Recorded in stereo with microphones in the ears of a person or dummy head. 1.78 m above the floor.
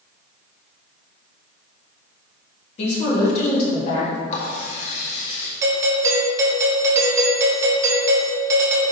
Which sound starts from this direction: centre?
A doorbell, at 5.6 s.